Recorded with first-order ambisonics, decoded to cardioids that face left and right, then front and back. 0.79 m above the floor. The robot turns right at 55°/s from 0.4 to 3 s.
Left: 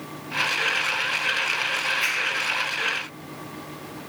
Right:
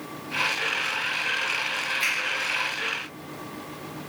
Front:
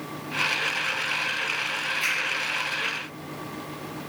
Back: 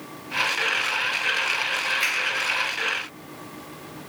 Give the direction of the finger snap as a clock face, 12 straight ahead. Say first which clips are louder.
Right 2 dB, front 1 dB; 5 o'clock.